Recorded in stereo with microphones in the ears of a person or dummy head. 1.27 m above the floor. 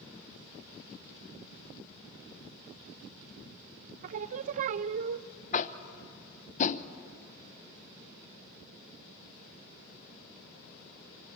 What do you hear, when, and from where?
4.0 s singing: 40° right (ahead or behind), 0.6 m
5.5 s tapping: 40° left (ahead or behind), 0.7 m